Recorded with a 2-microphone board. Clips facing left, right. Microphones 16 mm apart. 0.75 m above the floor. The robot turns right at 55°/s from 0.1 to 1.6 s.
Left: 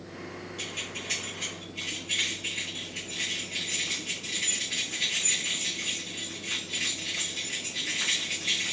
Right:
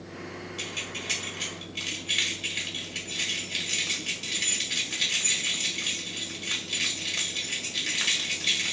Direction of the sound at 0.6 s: 150° right.